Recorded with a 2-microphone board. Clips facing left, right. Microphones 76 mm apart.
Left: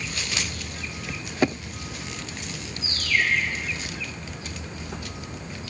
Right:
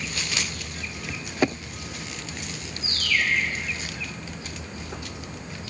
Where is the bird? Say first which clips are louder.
Left 1 dB; 20° left (ahead or behind), 7 m.